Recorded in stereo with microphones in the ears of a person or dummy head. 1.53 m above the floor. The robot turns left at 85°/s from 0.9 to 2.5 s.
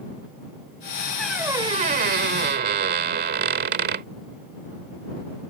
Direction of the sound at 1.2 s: 5° left.